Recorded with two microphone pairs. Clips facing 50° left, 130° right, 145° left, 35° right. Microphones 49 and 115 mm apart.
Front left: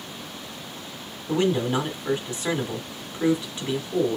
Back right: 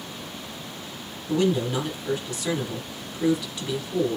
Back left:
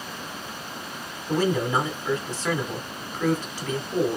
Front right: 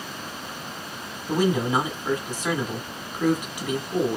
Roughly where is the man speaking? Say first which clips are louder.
Even, front right 1 dB; ahead left.